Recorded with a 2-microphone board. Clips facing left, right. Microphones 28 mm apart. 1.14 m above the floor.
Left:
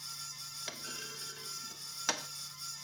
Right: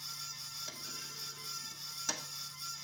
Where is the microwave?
I don't hear a microwave.